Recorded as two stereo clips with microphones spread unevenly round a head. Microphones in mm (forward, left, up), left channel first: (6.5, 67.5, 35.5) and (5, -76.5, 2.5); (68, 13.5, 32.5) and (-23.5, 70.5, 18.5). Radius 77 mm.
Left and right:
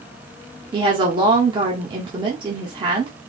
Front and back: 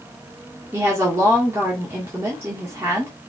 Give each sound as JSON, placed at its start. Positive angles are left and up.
{"t": 0.7, "sound": "a woman speaking", "azimuth_deg": -145, "distance_m": 1.8}